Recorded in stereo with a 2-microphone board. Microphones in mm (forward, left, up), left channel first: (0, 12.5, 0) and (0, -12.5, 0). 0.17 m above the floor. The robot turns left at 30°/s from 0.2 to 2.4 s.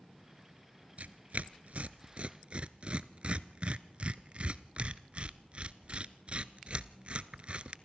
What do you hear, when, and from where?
1.0 s tearing paper: 70° right (ahead or behind), 0.6 m; by 7.8 s 45° right (ahead or behind), 0.6 m